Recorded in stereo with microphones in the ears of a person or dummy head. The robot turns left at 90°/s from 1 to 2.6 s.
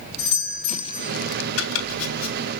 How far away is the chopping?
About 2 m.